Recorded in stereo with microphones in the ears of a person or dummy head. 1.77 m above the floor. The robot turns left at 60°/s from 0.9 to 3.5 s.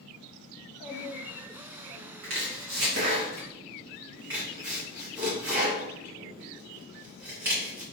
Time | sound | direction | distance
0.6 | a child speaking | 5° left (ahead or behind) | 1.0 m
2.2 | chopping | 50° right (ahead or behind) | 1.1 m